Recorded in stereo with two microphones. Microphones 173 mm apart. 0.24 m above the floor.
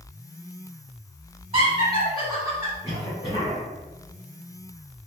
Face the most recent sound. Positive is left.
turn(degrees=30)  # may be behind; listen again after turning